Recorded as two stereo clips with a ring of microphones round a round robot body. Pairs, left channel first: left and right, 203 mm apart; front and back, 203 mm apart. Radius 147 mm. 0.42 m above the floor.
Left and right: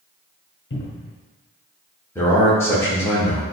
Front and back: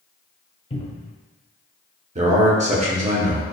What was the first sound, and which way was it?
A cupboard door, 65° left.